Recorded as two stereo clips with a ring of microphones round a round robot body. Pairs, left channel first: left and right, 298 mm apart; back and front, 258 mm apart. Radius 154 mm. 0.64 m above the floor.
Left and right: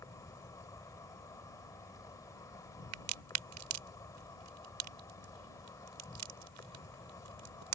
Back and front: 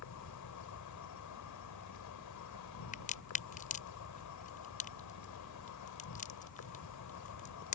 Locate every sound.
0.0 s an insect: 170° left
2.9 s a crack: 115° right